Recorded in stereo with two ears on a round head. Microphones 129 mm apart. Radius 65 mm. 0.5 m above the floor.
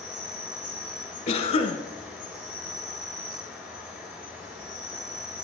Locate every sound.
0.0 s an insect: 5° right (ahead or behind), 2 m
1.3 s a cough: 50° left (ahead or behind), 1.8 m